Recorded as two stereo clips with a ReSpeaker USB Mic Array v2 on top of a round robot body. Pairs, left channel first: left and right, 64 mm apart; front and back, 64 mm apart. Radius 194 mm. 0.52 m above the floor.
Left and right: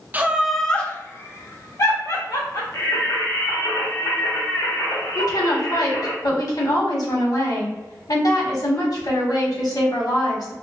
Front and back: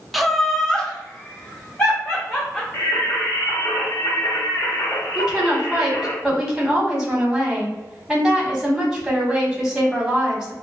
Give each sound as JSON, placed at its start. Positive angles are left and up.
{"t": 0.1, "sound": "laughter", "azimuth_deg": -90, "distance_m": 0.9}
{"t": 2.7, "sound": "singing", "azimuth_deg": 60, "distance_m": 1.5}
{"t": 5.2, "sound": "a woman speaking", "azimuth_deg": 100, "distance_m": 1.7}